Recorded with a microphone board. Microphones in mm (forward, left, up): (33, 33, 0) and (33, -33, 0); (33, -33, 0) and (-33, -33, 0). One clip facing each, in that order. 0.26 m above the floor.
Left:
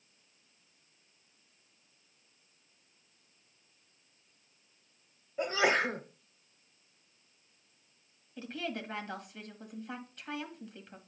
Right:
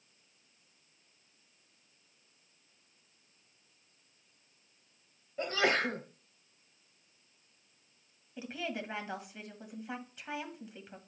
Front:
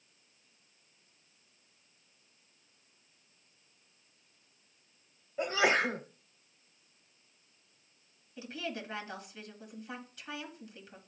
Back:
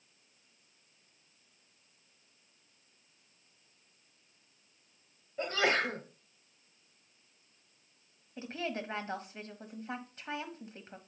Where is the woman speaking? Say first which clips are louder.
Even, back 2 dB; 160° right, 1.5 m.